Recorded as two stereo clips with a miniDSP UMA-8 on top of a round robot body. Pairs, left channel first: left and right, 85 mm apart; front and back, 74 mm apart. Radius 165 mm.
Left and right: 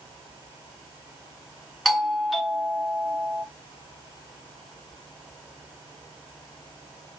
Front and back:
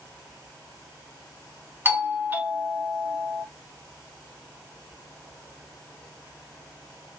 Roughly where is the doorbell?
Behind.